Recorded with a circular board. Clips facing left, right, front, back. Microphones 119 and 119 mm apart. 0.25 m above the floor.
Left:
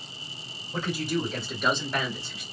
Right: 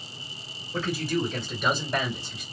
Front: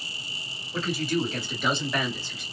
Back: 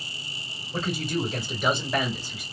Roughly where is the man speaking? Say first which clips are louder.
Right 1 dB, front 1 dB; behind left.